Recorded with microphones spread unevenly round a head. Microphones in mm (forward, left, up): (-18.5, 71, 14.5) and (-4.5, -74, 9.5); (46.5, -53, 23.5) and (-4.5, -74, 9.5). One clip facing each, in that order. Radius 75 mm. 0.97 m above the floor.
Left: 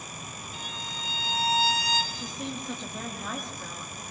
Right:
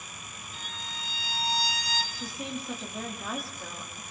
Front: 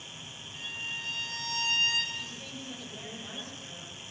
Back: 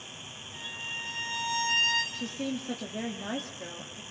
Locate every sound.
0.5 s a violin: 140° left, 4 m
2.1 s a woman speaking: 170° right, 1.9 m